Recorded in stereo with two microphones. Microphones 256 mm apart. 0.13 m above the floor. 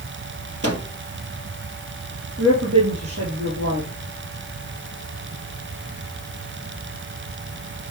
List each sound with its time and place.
0.6 s a microwave: 65° right (ahead or behind), 2.5 m
2.4 s a woman speaking: 70° right (ahead or behind), 3 m